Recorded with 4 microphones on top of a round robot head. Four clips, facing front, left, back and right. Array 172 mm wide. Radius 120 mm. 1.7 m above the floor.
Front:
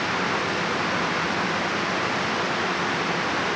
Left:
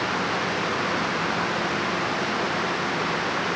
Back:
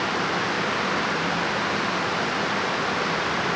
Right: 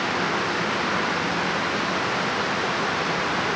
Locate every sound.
Only background noise.